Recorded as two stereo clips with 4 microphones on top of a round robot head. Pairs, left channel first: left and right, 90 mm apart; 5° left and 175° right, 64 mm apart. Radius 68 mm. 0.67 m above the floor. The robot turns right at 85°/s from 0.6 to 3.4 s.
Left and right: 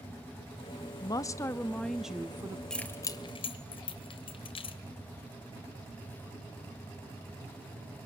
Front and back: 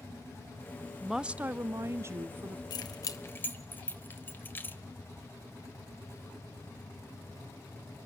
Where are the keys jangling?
5° left, 1.8 m; by 4.8 s 65° left, 1.8 m.